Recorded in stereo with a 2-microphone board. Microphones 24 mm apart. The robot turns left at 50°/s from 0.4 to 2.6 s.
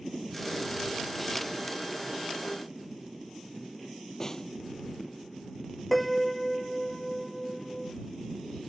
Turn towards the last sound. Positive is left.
turn(degrees=10)  # may be behind; listen again after turning